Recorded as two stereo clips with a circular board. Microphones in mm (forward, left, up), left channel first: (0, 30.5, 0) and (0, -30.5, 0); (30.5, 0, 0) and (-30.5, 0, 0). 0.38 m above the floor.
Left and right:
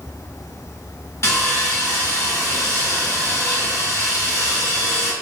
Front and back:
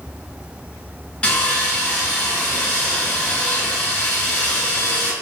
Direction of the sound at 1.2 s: 70° left.